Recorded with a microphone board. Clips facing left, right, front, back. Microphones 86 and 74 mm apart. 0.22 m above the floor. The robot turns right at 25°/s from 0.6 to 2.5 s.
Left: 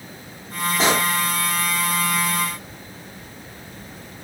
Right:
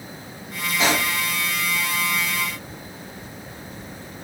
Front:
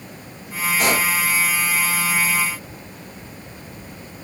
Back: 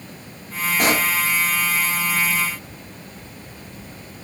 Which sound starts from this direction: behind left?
A pop, at 0.8 s.